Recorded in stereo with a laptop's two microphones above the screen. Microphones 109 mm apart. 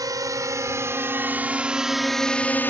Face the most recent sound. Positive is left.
turn(degrees=20)  # may be behind; listen again after turning